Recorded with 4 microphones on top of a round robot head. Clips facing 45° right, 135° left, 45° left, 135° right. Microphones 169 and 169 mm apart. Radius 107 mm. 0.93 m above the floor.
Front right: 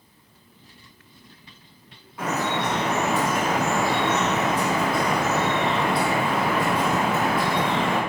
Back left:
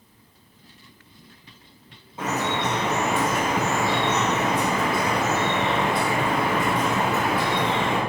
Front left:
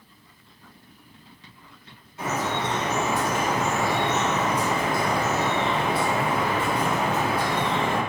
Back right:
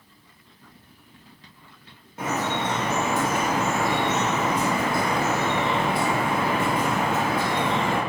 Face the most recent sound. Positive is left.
turn(degrees=-165)